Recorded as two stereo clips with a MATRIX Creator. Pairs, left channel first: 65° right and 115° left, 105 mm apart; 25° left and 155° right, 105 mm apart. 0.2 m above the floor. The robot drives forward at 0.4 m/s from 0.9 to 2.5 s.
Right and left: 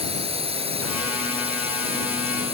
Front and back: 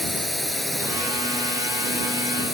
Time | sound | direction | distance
0.0 | a drone | 110° left | ?